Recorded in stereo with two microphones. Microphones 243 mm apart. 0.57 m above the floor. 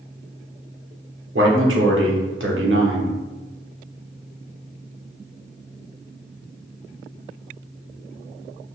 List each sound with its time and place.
1.4 s a man speaking: 55° right (ahead or behind), 1.2 m